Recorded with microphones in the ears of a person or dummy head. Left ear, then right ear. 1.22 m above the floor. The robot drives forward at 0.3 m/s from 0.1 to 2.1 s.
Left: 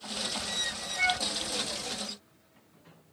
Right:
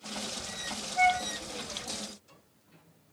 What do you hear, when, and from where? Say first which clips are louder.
1.0 s a flute: right 3 dB; 35° right (ahead or behind), 1.1 m